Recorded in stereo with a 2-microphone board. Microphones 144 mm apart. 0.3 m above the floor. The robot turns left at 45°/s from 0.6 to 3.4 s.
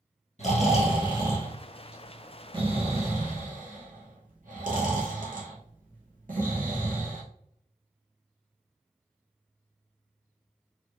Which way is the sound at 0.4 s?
55° left (ahead or behind).